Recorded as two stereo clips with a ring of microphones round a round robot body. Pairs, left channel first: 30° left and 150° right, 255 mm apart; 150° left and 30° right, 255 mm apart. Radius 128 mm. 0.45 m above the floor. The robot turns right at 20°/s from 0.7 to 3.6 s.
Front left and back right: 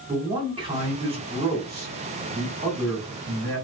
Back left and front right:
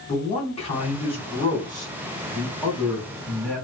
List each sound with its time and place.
0.1 s a man speaking: 175° left, 1.4 m; by 3.6 s 130° right, 1.4 m